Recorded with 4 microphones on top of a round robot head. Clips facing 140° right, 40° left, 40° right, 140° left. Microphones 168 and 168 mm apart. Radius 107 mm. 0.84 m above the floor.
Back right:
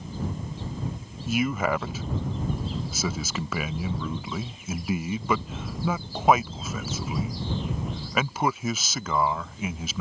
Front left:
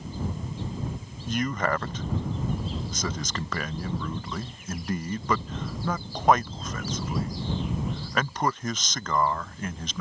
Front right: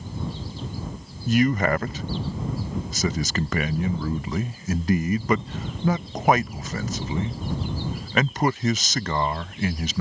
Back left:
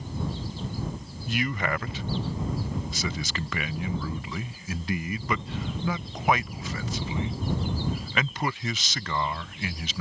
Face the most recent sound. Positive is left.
turn(degrees=-60)